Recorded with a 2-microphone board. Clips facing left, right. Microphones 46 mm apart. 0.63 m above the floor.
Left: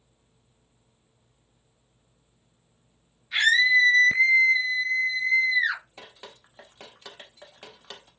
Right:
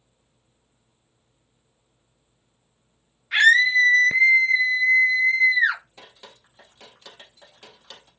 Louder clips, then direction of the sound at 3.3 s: Right 4 dB; 55° right (ahead or behind).